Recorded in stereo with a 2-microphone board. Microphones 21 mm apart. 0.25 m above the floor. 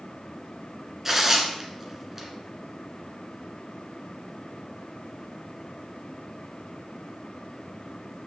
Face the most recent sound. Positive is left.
turn(degrees=-15)  # may be behind; listen again after turning